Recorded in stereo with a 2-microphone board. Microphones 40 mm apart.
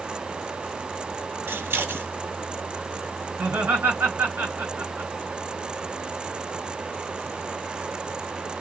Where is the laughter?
70° right (ahead or behind), 2.5 m.